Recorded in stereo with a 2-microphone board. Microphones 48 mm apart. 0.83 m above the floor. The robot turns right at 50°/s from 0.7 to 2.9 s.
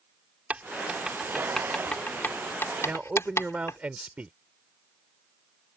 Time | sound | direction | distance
0.5 | writing | 30° right (ahead or behind) | ?
2.8 | a man speaking | 25° right (ahead or behind) | ?